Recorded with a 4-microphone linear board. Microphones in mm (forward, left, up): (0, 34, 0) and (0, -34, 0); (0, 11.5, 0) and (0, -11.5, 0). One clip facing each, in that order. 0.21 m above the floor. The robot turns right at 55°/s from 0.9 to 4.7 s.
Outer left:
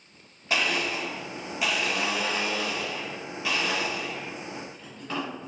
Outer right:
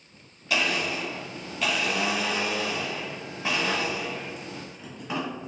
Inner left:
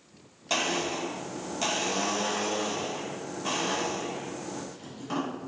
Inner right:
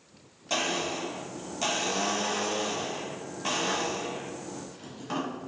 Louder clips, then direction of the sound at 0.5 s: Even, inner left 1 dB; 30° left (ahead or behind).